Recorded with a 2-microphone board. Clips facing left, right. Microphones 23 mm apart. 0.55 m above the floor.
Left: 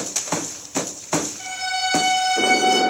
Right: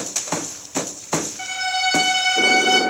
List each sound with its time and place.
1.4 s a violin: 45° right (ahead or behind), 1.3 m